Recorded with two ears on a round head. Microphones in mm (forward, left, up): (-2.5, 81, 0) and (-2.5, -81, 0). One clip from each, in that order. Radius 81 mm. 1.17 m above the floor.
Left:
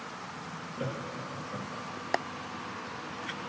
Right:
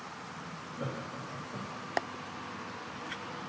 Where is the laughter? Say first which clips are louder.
Left 3 dB; 80° left, 1.6 m; by 1.9 s 70° left (ahead or behind), 1.9 m.